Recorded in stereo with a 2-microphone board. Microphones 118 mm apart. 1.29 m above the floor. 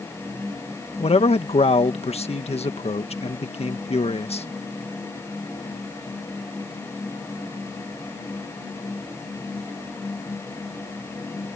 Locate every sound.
1.0 s a man speaking: 60° left (ahead or behind)